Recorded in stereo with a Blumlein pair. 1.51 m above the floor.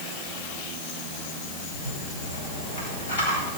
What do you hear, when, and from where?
1.7 s a rattle: 60° left, 7.5 m